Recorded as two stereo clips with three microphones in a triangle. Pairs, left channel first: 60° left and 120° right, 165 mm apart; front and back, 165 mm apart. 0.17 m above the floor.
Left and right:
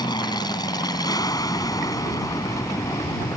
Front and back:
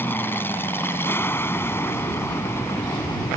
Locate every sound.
0.0 s an aircraft: 60° left; by 3.4 s 40° left